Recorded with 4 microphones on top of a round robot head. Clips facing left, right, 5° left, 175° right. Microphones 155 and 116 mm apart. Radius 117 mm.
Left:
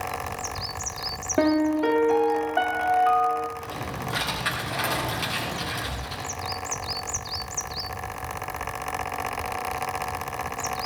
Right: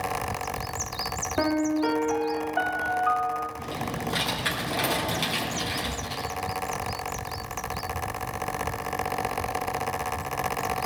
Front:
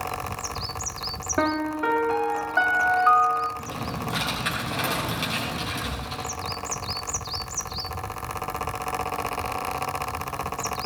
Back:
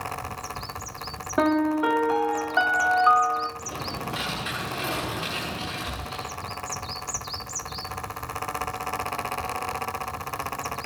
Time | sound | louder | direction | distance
1.4 | a piano | left 3 dB, back 3 dB | 115° left | 1.0 m
3.6 | typing on a keyboard | right 2 dB, front 2 dB | 30° right | 7 m